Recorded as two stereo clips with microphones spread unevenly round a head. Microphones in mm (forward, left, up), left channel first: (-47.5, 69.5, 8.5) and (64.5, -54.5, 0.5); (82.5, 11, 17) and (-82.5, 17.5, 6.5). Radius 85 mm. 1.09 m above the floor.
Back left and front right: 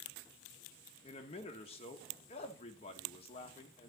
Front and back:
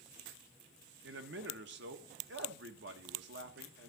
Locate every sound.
1.0 s a man speaking: 170° right, 1.4 m